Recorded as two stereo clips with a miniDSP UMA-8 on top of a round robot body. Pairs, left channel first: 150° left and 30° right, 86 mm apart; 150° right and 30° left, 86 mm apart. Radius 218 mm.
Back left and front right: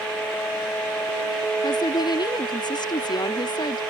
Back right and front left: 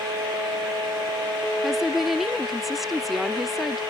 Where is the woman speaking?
120° left.